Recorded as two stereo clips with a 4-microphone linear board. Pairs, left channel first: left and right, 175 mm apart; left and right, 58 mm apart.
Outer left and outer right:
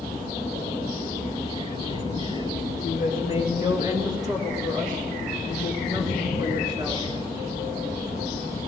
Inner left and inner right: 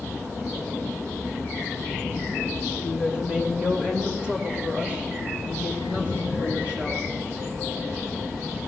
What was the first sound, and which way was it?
A woman speaking, 25° right (ahead or behind).